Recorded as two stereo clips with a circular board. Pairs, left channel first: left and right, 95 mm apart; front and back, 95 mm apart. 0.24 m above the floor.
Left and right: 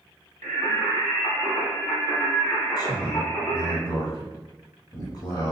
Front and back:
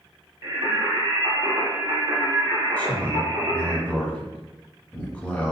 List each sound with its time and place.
0.4 s singing: 155° left, 1.6 m
2.8 s a man speaking: 70° left, 1.5 m